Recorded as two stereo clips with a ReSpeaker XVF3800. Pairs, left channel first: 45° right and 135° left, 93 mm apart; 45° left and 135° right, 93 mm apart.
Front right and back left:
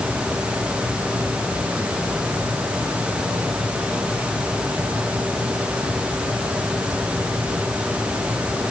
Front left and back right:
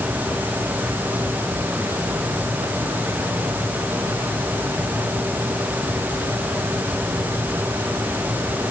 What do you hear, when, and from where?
Only background noise.